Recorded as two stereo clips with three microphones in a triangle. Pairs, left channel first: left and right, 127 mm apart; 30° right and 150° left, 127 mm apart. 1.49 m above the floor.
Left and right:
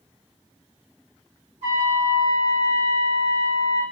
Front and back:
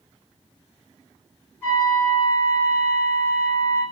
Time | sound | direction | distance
1.6 | a trumpet | 100° right | 1.9 m